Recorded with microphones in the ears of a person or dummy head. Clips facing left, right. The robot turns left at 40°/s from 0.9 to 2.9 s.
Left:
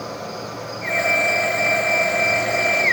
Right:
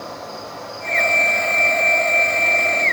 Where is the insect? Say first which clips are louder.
Left 2 dB; 145° left, 1.2 m; by 2.9 s 65° left, 1.2 m.